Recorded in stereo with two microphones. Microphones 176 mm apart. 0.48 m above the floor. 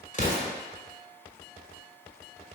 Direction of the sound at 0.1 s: 45° left (ahead or behind).